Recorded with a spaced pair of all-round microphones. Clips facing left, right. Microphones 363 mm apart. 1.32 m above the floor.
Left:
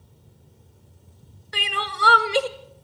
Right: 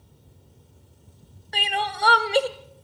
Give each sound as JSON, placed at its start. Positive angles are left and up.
{"t": 1.5, "sound": "crying", "side_deg": 15, "distance_m": 1.2}